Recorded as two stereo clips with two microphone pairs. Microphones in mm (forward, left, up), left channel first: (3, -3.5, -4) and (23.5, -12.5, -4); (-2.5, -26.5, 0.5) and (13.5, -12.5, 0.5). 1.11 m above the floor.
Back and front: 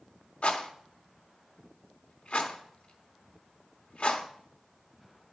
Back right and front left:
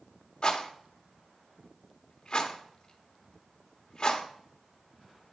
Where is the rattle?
175° left, 1.2 m.